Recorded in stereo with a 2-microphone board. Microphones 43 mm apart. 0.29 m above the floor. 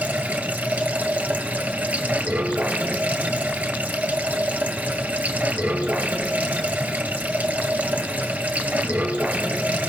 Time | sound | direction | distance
0.0 | running water | 30° right (ahead or behind) | 2 m